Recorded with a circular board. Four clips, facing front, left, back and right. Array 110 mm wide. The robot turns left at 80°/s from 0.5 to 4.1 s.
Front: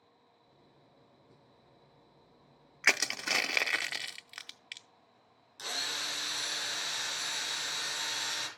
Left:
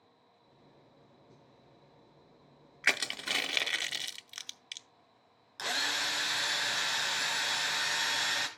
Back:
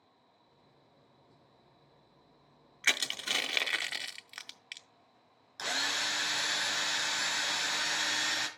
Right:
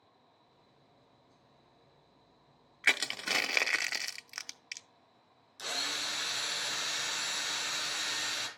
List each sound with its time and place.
2.8 s crushing: 10° left, 0.6 m; by 4.9 s 90° right, 0.6 m
5.6 s a drill: 130° left, 2 m